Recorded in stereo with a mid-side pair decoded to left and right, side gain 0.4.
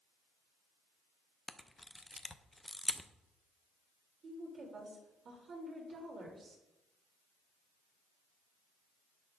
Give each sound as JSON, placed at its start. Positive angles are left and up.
{"t": 1.5, "sound": "a camera shutter", "azimuth_deg": 10, "distance_m": 0.6}
{"t": 4.2, "sound": "a woman speaking", "azimuth_deg": -60, "distance_m": 3.5}